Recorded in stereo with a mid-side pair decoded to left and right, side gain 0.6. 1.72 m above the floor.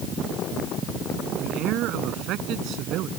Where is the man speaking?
65° right.